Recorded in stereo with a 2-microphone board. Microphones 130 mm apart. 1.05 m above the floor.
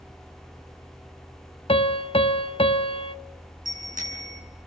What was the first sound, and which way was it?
A piano, 45° left (ahead or behind).